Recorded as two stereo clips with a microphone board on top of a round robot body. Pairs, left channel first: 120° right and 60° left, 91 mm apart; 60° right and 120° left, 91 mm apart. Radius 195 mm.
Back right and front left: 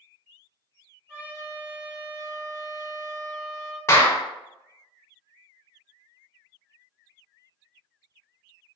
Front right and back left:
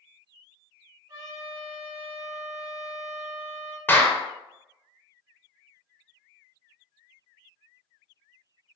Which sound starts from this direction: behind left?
A trumpet, at 1.1 s.